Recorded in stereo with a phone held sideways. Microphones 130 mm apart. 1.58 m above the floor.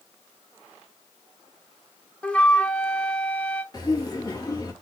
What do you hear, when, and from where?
2.2 s a flute: 10° left (ahead or behind), 0.9 m
3.7 s laughter: 35° left (ahead or behind), 3.5 m